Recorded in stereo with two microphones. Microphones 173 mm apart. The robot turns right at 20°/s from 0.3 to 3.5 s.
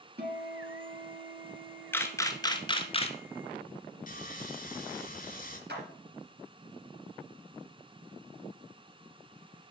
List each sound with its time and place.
0.2 s a guitar: 95° right, 1.3 m; by 2.9 s 45° right, 1.3 m
1.9 s a camera shutter: 10° left (ahead or behind), 0.8 m; by 3.2 s 35° left (ahead or behind), 0.8 m
4.1 s sawing: 50° left (ahead or behind), 2.0 m
5.7 s a clap: 75° right (ahead or behind), 3 m